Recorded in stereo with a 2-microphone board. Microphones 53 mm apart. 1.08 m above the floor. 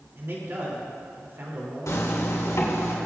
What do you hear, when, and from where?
0.1 s a man speaking: 45° right (ahead or behind), 3 m
1.9 s a zipper: 85° left, 3 m